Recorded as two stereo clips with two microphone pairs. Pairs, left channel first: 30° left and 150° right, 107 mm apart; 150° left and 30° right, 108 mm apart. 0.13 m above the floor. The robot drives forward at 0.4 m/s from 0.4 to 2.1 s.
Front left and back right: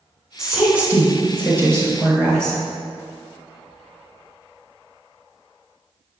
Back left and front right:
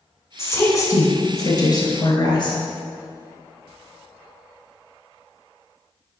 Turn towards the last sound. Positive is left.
turn(degrees=165)